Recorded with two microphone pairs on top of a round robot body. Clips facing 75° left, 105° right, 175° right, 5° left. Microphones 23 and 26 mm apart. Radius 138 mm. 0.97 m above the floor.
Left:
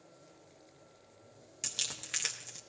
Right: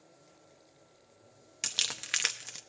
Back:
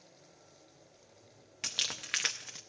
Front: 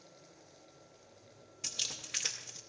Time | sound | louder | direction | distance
1.6 | crumpling | right 5 dB, back 4 dB | 165° right | 0.6 m